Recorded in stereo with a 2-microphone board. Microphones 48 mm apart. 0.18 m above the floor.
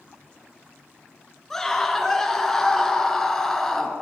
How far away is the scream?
About 2 m.